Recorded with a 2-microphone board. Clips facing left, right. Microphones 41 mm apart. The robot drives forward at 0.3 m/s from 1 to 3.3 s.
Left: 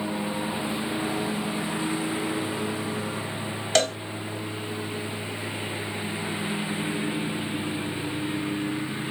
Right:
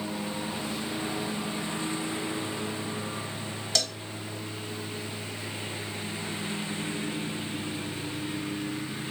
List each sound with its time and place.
0.0 s a lawn mower: 15° left (ahead or behind)
3.8 s a cowbell: 40° left (ahead or behind)